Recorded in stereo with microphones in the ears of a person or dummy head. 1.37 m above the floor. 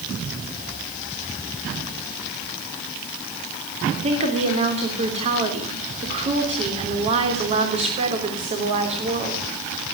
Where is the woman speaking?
35° right (ahead or behind), 3.5 m.